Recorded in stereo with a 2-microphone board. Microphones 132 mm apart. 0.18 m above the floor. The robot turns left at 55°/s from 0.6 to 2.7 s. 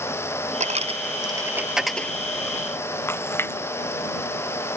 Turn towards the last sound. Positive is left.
turn(degrees=15)  # may be behind; listen again after turning